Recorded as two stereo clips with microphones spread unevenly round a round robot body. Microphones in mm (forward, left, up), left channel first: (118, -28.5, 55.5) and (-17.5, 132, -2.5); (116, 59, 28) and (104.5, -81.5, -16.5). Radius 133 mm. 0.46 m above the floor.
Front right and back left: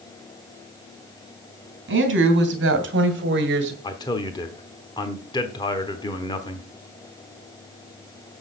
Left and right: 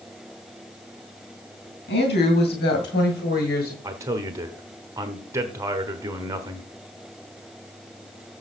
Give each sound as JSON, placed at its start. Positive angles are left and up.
{"t": 1.9, "sound": "a woman speaking", "azimuth_deg": 110, "distance_m": 3.0}
{"t": 3.8, "sound": "a man speaking", "azimuth_deg": -135, "distance_m": 1.0}